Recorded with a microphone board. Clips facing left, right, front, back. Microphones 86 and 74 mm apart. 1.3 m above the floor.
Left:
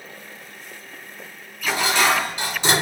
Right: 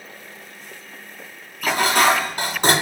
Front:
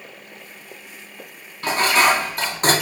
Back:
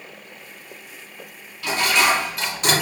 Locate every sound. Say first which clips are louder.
1.6 s dishes clattering: right 3 dB, front 2 dB; 50° right, 0.7 m